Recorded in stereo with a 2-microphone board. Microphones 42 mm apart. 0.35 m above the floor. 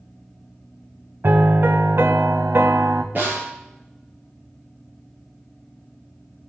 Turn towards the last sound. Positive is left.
turn(degrees=-50)  # may be behind; listen again after turning